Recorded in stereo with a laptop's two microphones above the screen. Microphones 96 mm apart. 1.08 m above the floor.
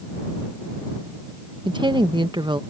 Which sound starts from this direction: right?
A woman speaking, at 1.6 s.